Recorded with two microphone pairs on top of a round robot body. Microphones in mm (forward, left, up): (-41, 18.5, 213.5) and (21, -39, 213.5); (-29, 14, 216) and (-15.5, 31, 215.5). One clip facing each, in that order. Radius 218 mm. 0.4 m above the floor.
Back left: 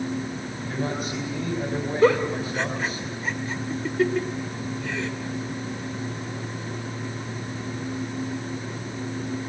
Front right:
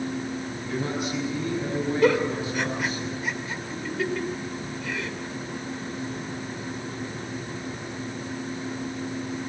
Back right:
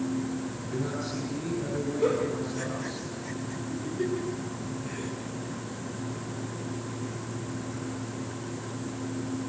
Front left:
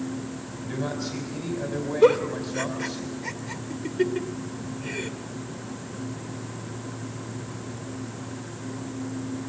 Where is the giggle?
85° left, 2 m.